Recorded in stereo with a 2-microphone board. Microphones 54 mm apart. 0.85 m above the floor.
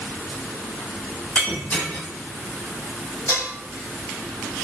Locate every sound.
1.4 s breaking glass: 30° left (ahead or behind), 0.8 m
3.3 s dishes clattering: 75° left (ahead or behind), 1.1 m